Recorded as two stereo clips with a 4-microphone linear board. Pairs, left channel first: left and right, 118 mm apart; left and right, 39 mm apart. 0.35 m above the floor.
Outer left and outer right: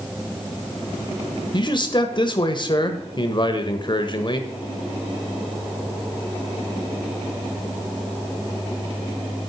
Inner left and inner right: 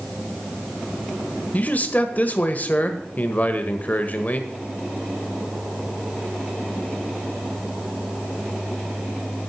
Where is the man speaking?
40° left (ahead or behind), 1.3 m.